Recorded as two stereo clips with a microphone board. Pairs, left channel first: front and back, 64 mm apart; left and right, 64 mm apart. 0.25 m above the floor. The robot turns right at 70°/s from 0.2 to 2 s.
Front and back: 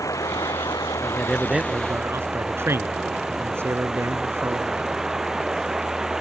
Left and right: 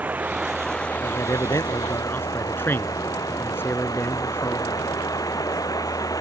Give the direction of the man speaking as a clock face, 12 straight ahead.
10 o'clock.